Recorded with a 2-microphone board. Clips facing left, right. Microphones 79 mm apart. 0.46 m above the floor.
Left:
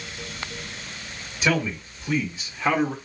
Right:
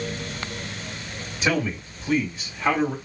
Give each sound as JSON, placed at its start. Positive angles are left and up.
{"t": 1.4, "sound": "a man speaking", "side_deg": -5, "distance_m": 2.0}